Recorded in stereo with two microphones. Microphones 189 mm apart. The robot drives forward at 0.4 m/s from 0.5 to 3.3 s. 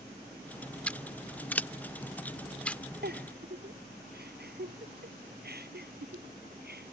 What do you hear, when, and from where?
0.9 s scissors: 5° left (ahead or behind)
3.0 s a giggle: 60° right (ahead or behind)